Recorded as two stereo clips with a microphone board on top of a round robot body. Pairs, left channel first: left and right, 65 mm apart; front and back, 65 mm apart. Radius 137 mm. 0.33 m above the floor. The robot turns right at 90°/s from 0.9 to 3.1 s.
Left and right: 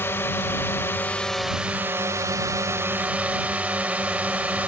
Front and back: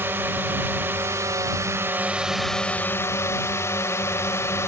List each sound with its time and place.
0.0 s a drone: 135° left; by 4.7 s 30° right